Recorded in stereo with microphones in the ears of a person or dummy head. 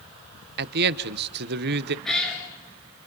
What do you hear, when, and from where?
0.6 s a man speaking: 60° right (ahead or behind), 1.0 m
2.0 s a cat meowing: 5° left (ahead or behind), 4 m